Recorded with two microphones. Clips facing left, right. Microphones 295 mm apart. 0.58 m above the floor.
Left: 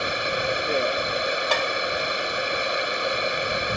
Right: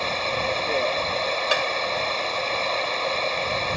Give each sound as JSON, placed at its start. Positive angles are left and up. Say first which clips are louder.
{"t": 0.0, "sound": "running water", "louder": "even", "side_deg": 15}
{"t": 1.5, "sound": "tapping", "louder": "even", "side_deg": -10}